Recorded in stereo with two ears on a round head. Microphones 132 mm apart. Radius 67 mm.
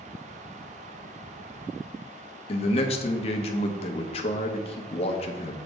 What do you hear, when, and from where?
2.5 s a man speaking: 40° left (ahead or behind), 0.9 m